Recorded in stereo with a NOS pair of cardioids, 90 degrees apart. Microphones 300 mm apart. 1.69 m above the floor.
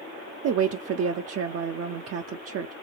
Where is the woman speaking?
55° right, 0.6 m.